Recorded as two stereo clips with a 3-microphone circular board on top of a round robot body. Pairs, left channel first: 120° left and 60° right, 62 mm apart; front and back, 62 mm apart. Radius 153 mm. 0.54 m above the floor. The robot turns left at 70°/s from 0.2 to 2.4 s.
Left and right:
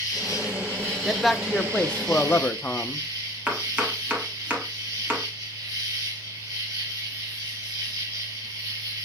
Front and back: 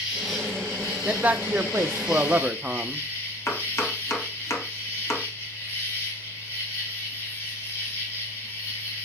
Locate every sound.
0.0 s an insect: 100° left, 1.8 m; by 9.1 s 55° right, 1.8 m
1.1 s a man speaking: 135° right, 0.6 m; by 3.0 s 130° left, 0.6 m
3.5 s chopping: straight ahead, 1.5 m